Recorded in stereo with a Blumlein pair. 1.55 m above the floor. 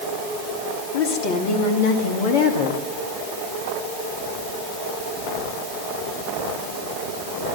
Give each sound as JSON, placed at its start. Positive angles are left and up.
{"t": 0.9, "sound": "a woman speaking", "azimuth_deg": 45, "distance_m": 3.0}